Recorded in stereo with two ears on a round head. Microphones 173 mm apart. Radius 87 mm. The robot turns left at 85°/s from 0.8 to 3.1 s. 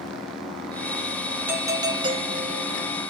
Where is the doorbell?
10° right (ahead or behind), 1.4 m.